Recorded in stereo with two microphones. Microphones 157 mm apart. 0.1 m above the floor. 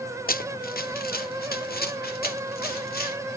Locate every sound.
0.3 s running footsteps: 70° left (ahead or behind), 0.7 m; by 3.2 s 80° left, 3 m